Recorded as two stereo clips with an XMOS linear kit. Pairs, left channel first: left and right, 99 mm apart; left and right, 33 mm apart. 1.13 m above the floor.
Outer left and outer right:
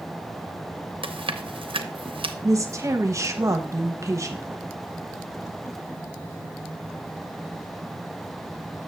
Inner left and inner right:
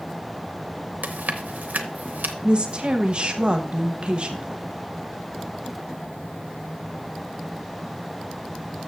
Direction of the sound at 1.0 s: 65° right (ahead or behind).